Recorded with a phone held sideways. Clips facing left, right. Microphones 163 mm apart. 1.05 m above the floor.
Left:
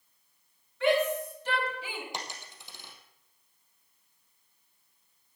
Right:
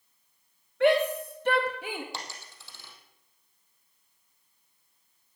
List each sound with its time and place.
0.8 s a shout: 65° right (ahead or behind), 2.5 m; by 2.0 s 50° right (ahead or behind), 1.8 m
2.1 s a dropped coin: 15° left (ahead or behind), 2.5 m